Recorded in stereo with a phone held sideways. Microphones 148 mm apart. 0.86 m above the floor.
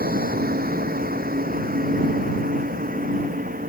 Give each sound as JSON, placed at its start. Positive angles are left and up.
{"t": 0.0, "sound": "a vehicle", "side_deg": -80}